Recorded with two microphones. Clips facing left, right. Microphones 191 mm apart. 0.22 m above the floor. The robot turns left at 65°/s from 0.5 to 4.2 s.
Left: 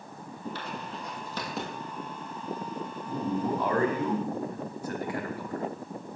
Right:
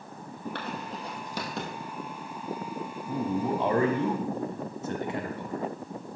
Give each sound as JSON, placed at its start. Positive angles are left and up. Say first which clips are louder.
{"t": 0.6, "sound": "writing", "louder": "right 2 dB", "side_deg": -65, "distance_m": 1.8}
{"t": 3.1, "sound": "a man speaking", "louder": "right 1 dB", "side_deg": -15, "distance_m": 1.1}